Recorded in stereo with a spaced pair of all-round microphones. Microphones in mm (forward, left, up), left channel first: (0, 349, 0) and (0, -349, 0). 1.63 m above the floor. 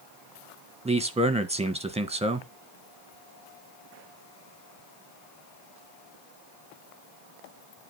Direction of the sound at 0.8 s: 10° right (ahead or behind).